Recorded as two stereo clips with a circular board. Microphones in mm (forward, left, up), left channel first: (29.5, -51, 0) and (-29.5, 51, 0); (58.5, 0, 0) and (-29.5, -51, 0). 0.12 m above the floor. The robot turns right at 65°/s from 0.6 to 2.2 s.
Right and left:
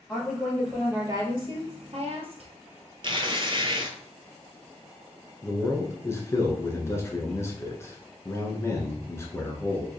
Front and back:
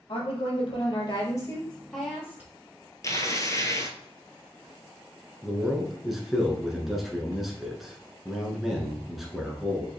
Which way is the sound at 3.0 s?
80° left.